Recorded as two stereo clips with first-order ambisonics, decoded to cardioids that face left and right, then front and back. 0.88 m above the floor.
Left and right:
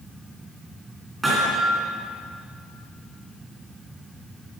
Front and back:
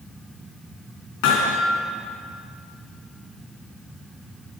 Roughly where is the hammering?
Ahead.